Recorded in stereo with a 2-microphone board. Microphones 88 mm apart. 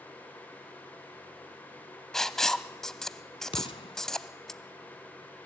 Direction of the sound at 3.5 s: 80° left.